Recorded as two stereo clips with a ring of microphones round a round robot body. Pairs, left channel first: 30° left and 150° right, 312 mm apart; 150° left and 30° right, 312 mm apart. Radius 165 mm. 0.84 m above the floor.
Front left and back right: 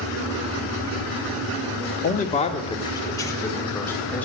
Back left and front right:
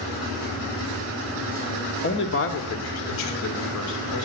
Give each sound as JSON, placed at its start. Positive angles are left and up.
{"t": 2.0, "sound": "a man speaking", "azimuth_deg": 90, "distance_m": 1.5}